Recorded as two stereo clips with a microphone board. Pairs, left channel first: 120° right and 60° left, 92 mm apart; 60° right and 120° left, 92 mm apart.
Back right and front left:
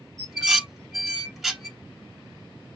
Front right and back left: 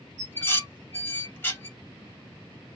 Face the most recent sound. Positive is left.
turn(degrees=-25)